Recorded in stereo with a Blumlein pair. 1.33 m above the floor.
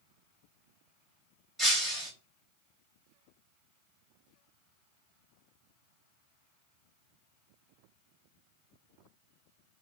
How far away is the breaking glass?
About 1.7 m.